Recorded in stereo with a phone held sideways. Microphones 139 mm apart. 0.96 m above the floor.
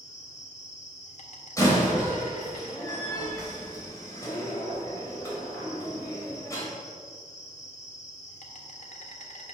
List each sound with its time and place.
0.0 s an insect: 60° left (ahead or behind), 1.4 m
1.6 s a door slam: 20° left (ahead or behind), 3.5 m